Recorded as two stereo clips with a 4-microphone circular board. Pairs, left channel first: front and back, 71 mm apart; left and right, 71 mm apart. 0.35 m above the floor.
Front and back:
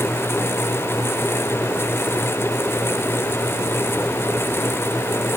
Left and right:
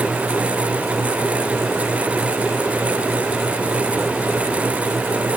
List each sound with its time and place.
Only background noise.